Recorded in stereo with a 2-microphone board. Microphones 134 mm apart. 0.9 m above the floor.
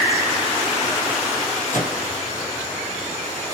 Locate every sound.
1.7 s a microwave: 75° left (ahead or behind), 0.7 m